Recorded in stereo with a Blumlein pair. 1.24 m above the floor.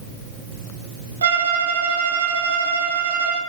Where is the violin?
70° right, 0.5 m.